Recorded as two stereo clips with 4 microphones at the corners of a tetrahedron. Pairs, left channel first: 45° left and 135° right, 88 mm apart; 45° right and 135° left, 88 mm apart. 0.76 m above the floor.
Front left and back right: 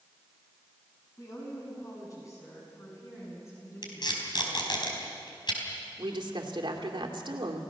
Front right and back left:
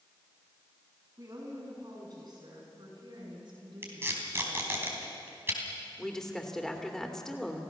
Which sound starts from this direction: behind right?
A woman speaking, at 6.0 s.